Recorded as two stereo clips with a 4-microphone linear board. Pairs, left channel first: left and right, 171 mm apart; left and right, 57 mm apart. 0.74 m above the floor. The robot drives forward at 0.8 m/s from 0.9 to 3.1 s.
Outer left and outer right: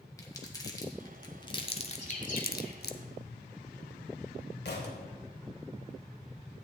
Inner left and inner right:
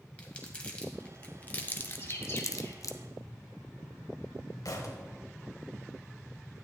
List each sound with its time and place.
0.2 s crumpling: 20° left (ahead or behind), 1.6 m; by 2.9 s 65° left (ahead or behind), 0.6 m
1.9 s a bird: 45° left (ahead or behind), 2.5 m; by 2.8 s 55° left (ahead or behind), 1.8 m
4.7 s a thud: 80° left, 1.4 m